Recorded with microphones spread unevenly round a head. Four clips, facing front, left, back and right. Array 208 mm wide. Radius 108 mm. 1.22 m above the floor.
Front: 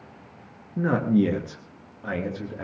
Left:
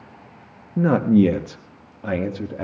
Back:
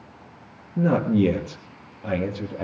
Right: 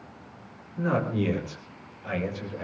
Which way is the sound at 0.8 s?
95° left.